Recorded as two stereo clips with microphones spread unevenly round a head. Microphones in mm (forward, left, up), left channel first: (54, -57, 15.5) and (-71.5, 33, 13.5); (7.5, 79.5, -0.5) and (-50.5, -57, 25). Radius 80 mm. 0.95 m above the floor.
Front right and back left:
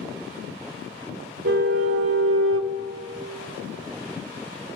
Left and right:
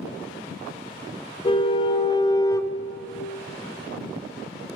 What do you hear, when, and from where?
1.4 s a car horn: 125° left, 2.5 m; by 2.7 s 145° left, 0.7 m